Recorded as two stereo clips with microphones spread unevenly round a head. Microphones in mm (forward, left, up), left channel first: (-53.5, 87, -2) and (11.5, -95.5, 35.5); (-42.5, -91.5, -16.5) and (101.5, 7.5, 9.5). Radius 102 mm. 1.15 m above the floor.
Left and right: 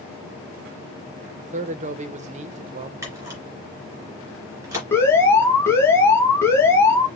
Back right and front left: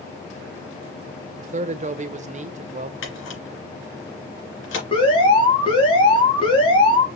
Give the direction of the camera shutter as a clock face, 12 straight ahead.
5 o'clock.